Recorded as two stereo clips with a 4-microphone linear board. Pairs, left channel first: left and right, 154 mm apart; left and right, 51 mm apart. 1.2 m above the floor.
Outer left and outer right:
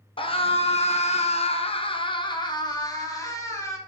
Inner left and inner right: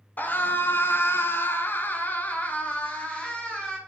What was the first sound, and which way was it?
A scream, 35° left (ahead or behind).